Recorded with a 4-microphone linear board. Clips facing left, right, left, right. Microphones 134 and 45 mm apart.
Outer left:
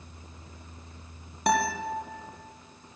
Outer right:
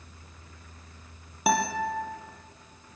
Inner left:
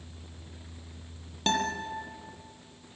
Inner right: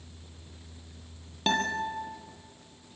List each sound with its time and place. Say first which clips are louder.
1.5 s a guitar: even, inner right 1 dB; 5° right (ahead or behind), 3 m